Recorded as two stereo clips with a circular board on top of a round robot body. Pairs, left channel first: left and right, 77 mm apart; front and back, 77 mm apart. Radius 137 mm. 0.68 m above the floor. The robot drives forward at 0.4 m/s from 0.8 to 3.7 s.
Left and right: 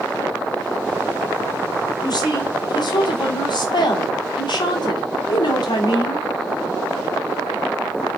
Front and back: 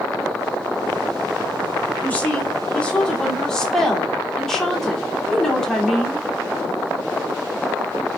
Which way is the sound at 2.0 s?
70° left.